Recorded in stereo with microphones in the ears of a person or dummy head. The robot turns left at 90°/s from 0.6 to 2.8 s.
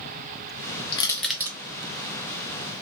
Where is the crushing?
25° left (ahead or behind), 0.6 m; by 1.6 s 25° right (ahead or behind), 0.6 m.